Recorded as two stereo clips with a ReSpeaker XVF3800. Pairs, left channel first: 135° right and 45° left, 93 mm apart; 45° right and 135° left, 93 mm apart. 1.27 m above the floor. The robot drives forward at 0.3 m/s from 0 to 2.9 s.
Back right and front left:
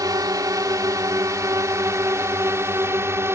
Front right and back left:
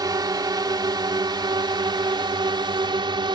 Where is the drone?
90° left; by 3.4 s 105° left.